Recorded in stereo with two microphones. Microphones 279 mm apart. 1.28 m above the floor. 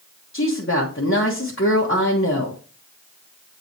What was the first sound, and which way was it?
A woman speaking, 45° left (ahead or behind).